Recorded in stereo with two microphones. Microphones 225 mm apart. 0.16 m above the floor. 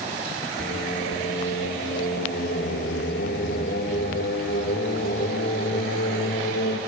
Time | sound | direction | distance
0.6 | singing | 45° left (ahead or behind) | 3 m